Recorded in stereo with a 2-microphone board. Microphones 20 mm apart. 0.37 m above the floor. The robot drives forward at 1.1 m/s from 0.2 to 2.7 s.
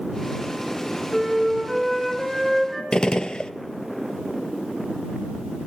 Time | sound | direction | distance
1.1 | a flute | 5° right (ahead or behind) | 3.5 m
2.9 | a gunshot | 55° left (ahead or behind) | 0.5 m